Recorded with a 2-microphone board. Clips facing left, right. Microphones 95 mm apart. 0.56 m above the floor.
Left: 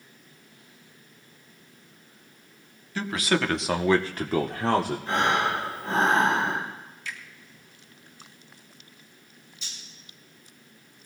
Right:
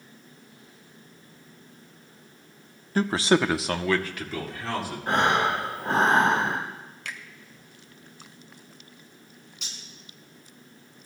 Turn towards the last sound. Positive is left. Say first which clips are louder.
# right 1 dB
turn(degrees=-85)